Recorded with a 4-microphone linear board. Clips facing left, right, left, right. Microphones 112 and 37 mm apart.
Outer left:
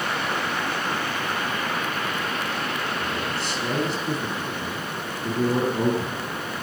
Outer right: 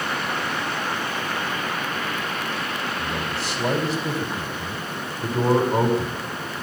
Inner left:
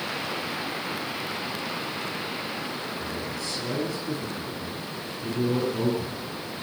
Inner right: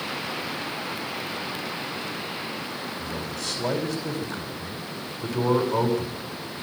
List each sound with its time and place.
3.0 s a man speaking: 80° right, 4.5 m